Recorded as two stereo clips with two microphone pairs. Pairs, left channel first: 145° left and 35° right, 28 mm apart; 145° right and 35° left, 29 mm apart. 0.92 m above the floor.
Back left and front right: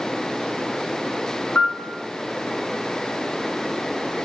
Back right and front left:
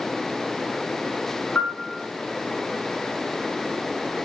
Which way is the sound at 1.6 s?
170° left.